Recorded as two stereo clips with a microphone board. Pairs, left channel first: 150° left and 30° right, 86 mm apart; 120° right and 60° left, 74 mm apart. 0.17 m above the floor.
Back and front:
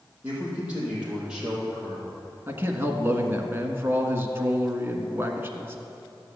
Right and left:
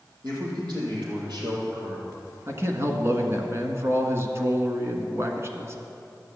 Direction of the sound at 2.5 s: 25° left.